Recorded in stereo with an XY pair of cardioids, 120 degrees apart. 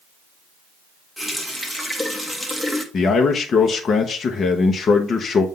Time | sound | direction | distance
1.2 | a running tap | 5° left | 1.4 m
2.9 | a man speaking | 40° left | 0.9 m